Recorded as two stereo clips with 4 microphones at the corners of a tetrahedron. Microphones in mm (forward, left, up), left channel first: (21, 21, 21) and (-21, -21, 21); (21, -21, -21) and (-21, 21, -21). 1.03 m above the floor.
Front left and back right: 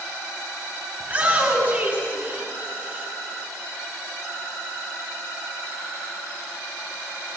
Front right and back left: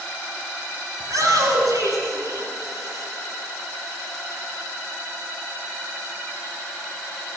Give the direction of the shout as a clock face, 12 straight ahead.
7 o'clock.